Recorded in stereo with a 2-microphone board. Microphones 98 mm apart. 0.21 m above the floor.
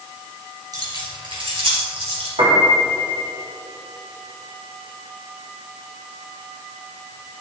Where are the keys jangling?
40° right (ahead or behind), 3 m; by 2.3 s 70° right (ahead or behind), 4 m.